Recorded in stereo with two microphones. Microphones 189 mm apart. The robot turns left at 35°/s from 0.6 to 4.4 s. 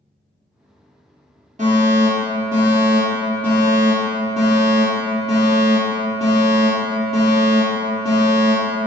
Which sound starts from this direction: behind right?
A fire alarm, at 1.6 s.